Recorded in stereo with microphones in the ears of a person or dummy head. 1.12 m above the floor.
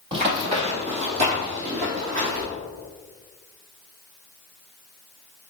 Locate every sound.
0.1 s running footsteps: 35° right (ahead or behind), 1.7 m; by 2.4 s 45° right (ahead or behind), 3.5 m